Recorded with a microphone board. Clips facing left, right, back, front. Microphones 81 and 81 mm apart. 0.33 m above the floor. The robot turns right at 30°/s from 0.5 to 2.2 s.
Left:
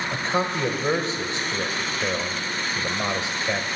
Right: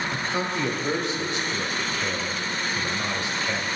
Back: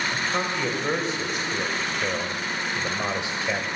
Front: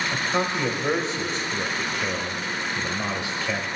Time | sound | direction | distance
0.1 | a man speaking | 80° left | 1.3 m